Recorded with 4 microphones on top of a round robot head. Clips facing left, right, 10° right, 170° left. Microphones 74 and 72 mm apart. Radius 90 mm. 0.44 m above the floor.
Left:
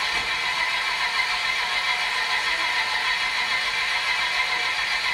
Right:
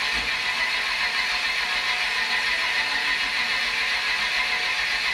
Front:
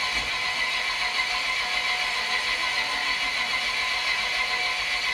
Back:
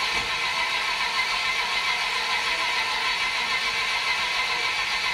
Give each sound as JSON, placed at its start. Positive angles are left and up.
{"t": 0.0, "sound": "an engine running", "azimuth_deg": 155, "distance_m": 3.0}